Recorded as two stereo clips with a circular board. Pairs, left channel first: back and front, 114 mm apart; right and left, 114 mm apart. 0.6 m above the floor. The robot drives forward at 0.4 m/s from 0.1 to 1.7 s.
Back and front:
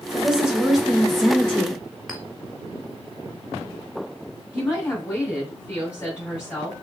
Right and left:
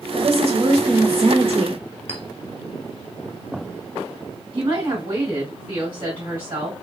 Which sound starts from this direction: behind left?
A woman speaking, at 4.5 s.